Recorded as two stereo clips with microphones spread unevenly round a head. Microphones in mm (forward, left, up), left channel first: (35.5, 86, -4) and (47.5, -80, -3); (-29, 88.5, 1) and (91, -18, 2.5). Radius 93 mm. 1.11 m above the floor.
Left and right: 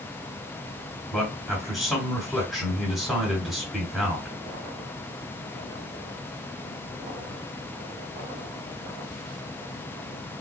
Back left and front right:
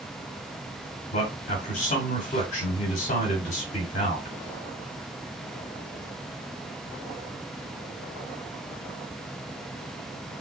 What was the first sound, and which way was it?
A man speaking, 175° right.